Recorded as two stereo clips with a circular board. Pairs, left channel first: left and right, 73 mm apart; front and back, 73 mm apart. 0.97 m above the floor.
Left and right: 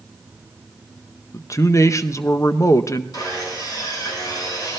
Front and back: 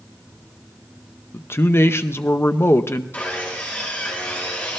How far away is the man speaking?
About 0.6 m.